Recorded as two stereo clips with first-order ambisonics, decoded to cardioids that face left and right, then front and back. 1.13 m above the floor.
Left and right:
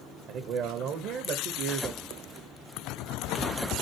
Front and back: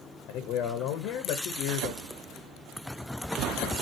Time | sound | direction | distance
0.3 | a man speaking | 40° right | 0.6 m